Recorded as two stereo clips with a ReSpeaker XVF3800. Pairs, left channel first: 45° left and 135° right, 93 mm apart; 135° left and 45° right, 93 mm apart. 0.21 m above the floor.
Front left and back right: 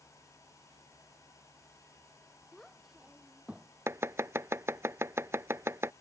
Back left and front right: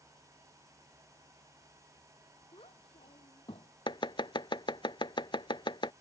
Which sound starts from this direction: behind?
Chopping, at 3.9 s.